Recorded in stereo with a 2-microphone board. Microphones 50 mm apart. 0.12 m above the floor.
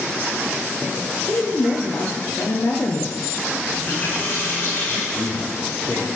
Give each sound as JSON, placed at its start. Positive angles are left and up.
{"t": 1.0, "sound": "a woman speaking", "side_deg": 55, "distance_m": 2.5}
{"t": 3.7, "sound": "a running tap", "side_deg": 35, "distance_m": 5.5}
{"t": 5.1, "sound": "a man speaking", "side_deg": 30, "distance_m": 4.5}